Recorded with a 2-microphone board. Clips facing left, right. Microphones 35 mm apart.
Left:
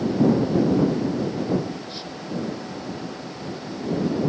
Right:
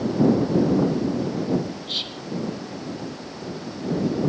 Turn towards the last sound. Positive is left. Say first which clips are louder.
# right 5 dB
turn(degrees=-65)  # may be behind; listen again after turning